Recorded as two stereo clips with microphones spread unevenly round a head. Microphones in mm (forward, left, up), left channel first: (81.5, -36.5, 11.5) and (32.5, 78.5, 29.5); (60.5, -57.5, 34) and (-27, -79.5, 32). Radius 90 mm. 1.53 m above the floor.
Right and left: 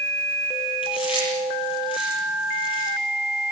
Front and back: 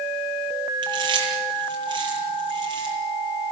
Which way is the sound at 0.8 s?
130° right.